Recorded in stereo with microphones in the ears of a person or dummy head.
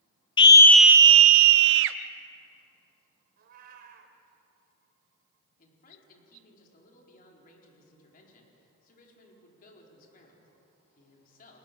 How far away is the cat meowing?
About 2.5 m.